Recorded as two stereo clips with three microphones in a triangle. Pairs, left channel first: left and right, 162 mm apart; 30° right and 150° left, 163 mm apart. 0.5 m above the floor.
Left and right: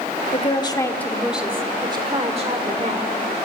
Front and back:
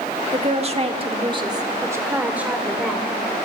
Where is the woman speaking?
120° left, 1.3 m; by 3.1 s 120° right, 2 m.